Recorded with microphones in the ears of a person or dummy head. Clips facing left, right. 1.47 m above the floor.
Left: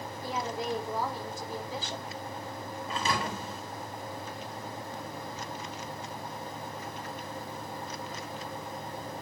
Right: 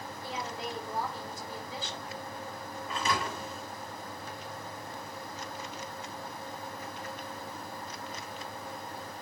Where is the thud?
35° left (ahead or behind), 2.5 m.